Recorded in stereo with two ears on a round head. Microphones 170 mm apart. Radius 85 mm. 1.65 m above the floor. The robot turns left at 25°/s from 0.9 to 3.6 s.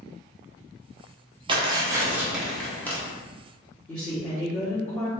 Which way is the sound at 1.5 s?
155° right.